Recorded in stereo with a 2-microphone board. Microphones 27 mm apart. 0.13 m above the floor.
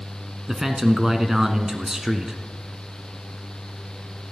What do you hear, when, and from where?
0.5 s a man speaking: 15° right (ahead or behind), 1.1 m